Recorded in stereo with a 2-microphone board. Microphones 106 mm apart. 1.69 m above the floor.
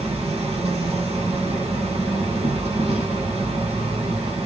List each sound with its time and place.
0.0 s an insect: 85° right, 1.9 m